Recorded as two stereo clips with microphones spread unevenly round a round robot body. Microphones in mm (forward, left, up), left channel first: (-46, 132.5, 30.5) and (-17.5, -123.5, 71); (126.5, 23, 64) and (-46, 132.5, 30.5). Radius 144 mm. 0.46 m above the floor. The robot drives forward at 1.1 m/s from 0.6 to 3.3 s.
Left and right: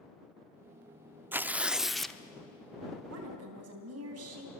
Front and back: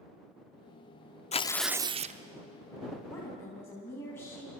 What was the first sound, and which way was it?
Tearing paper, 10° left.